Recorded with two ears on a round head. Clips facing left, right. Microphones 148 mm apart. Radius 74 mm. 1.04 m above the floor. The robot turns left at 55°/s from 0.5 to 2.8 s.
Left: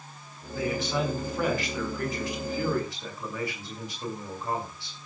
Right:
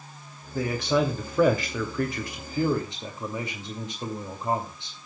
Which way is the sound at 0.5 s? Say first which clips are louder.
Right 4 dB; 35° right.